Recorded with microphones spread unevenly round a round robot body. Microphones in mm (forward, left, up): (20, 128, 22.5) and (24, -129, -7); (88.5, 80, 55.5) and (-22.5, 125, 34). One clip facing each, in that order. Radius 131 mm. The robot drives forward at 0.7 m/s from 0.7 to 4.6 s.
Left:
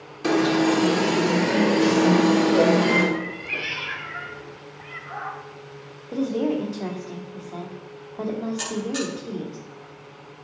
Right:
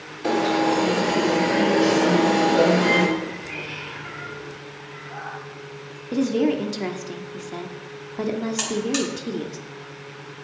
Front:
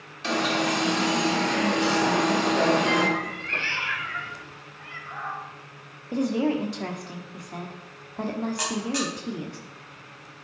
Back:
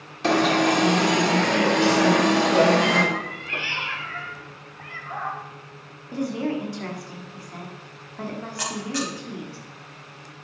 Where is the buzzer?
100° right, 4.5 m.